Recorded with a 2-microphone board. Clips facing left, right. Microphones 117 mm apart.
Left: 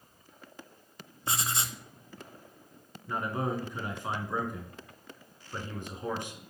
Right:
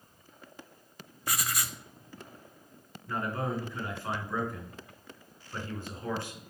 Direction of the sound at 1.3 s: 25° left (ahead or behind).